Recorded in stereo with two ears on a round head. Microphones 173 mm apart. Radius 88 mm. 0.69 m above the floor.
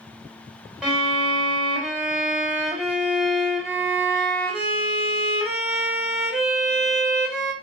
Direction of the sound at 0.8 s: 5° right (ahead or behind).